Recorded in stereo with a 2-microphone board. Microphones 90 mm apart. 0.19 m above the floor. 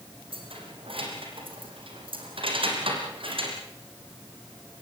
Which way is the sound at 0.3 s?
85° right.